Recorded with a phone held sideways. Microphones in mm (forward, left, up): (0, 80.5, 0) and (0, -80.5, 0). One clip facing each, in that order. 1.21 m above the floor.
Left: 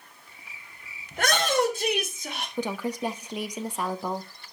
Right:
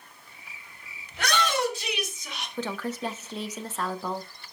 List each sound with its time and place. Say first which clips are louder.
1.1 s a shout: left 3 dB; 50° left (ahead or behind), 4 m; by 2.5 s 55° left (ahead or behind), 2.5 m
2.6 s a woman speaking: left 2 dB; 15° left (ahead or behind), 0.9 m